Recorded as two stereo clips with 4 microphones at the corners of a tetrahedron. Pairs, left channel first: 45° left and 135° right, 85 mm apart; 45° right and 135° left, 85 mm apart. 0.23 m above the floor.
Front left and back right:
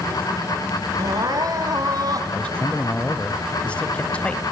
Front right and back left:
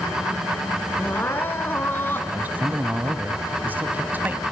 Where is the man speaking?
105° left, 1.1 m.